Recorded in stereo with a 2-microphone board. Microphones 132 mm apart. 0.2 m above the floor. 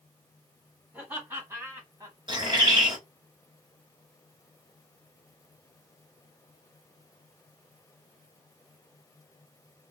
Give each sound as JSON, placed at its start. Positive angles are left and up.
{"t": 0.9, "sound": "laughter", "side_deg": -15, "distance_m": 1.5}
{"t": 2.3, "sound": "a bird", "side_deg": -35, "distance_m": 1.3}